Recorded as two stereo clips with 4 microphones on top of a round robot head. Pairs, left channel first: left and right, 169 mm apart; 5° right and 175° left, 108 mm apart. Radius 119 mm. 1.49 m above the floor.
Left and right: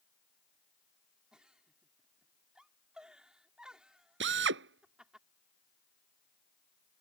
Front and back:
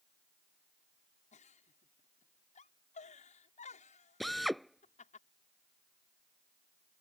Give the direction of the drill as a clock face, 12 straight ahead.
3 o'clock.